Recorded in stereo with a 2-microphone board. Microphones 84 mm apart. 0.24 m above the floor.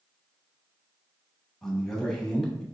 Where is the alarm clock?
I don't hear an alarm clock.